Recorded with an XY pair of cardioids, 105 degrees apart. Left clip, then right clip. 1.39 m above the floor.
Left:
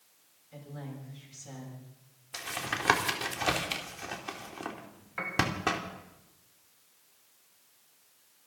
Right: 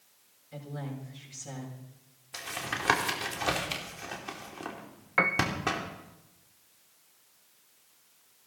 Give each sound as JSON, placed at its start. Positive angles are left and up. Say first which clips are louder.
{"t": 0.5, "sound": "a woman speaking", "louder": "right 4 dB", "azimuth_deg": -30, "distance_m": 6.5}
{"t": 2.3, "sound": "tapping", "louder": "even", "azimuth_deg": 15, "distance_m": 2.5}
{"t": 5.2, "sound": "a piano", "louder": "right 5 dB", "azimuth_deg": -65, "distance_m": 1.1}